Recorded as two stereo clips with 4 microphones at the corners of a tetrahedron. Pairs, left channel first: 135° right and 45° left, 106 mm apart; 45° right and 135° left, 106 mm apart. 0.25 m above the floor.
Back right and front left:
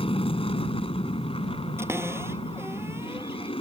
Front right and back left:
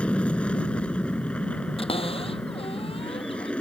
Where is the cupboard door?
20° right.